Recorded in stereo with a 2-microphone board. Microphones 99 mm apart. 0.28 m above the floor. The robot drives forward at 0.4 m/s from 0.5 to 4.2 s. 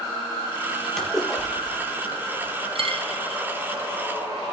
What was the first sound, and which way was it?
A splash, 5° left (ahead or behind).